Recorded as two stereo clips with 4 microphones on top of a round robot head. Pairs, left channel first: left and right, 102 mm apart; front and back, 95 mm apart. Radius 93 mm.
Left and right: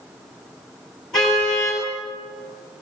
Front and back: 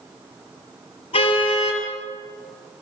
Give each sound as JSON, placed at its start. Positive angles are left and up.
{"t": 1.1, "sound": "a car horn", "azimuth_deg": 0, "distance_m": 7.0}